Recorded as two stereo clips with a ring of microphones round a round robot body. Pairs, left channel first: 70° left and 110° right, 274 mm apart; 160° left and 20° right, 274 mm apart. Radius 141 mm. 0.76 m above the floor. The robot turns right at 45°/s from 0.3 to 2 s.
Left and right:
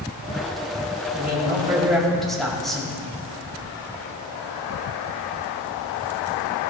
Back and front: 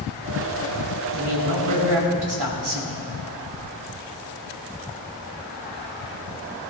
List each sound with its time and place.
1.1 s a man speaking: 60° right, 5 m; by 3.0 s 20° right, 5 m